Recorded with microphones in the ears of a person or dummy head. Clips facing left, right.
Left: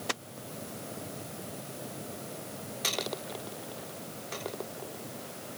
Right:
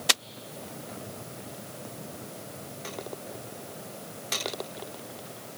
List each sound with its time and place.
Only background noise.